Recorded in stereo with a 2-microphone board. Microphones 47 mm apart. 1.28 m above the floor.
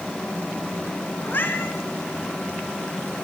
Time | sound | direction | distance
1.2 | a cat meowing | 50° left (ahead or behind) | 5 m